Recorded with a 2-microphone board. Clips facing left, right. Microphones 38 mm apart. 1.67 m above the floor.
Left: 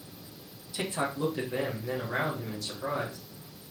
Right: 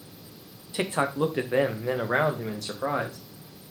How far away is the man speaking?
About 0.9 m.